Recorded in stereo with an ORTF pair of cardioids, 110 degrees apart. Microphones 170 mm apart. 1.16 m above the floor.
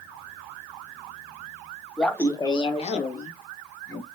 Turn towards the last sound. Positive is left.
turn(degrees=60)